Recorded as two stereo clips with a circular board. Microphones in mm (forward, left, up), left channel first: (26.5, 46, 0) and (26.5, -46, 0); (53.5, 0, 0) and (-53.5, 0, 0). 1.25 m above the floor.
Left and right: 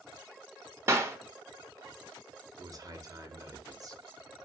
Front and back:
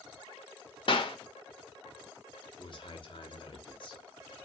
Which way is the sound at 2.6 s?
40° right.